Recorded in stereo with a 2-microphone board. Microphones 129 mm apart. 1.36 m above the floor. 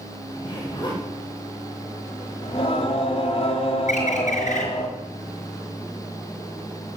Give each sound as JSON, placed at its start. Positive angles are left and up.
{"t": 0.3, "sound": "a zipper", "side_deg": 35, "distance_m": 6.5}
{"t": 2.4, "sound": "singing", "side_deg": 50, "distance_m": 3.0}
{"t": 3.9, "sound": "a bird", "side_deg": 65, "distance_m": 4.5}